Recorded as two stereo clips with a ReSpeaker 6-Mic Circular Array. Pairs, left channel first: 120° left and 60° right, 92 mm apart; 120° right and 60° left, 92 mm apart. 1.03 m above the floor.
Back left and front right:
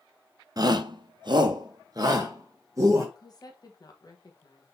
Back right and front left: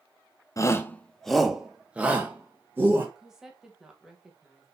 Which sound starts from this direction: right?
A shout, at 0.6 s.